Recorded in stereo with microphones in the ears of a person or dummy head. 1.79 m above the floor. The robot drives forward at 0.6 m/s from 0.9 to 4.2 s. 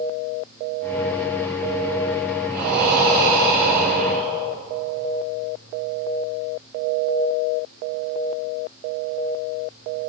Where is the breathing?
45° right (ahead or behind), 2 m; by 4.4 s 35° right (ahead or behind), 2.5 m.